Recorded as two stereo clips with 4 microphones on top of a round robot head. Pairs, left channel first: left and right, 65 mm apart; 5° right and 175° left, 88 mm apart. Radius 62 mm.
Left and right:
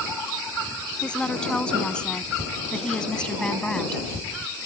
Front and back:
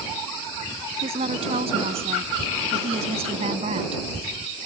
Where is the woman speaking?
165° left; by 4.0 s 170° left.